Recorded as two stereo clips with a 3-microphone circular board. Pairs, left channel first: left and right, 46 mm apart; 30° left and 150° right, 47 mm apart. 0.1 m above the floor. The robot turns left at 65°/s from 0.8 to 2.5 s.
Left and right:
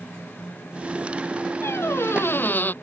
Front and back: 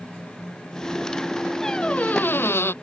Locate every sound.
1.6 s a squeak: 105° left; by 2.7 s 50° left